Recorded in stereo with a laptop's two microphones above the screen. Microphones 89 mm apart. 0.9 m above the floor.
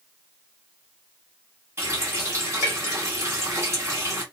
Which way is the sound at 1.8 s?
30° right (ahead or behind).